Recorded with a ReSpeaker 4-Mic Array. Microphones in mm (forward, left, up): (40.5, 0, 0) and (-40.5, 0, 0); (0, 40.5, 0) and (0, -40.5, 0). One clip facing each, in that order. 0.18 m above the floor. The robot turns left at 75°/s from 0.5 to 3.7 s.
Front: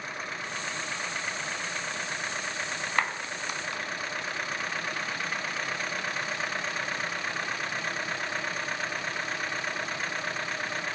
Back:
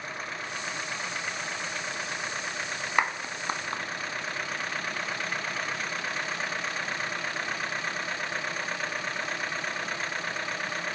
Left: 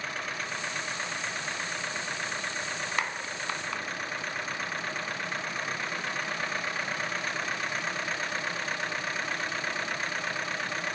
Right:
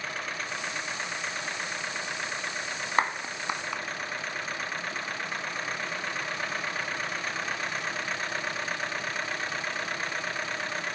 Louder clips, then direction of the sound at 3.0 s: Back 3 dB, right 9 dB; 110° right.